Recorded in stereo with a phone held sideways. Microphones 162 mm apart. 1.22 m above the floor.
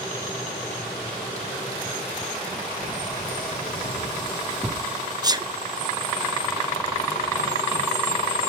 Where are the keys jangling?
60° right (ahead or behind), 1.3 m; by 4.9 s centre (ahead or behind), 1.3 m.